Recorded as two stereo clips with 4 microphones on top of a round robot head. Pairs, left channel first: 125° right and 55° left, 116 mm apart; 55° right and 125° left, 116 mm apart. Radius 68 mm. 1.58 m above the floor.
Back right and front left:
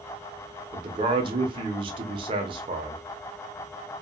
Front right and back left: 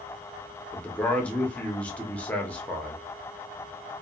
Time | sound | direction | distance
0.7 | a man speaking | 20° left | 0.6 m